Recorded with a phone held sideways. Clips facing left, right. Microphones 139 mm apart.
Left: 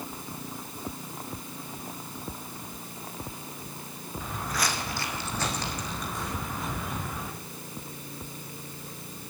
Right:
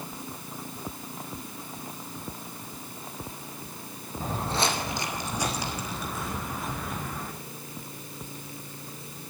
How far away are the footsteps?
About 1.9 m.